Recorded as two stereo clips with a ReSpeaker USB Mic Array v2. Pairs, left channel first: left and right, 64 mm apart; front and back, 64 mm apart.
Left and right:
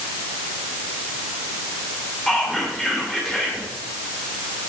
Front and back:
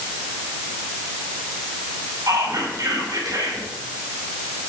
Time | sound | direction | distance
2.3 | whispering | 165° left | 3.5 m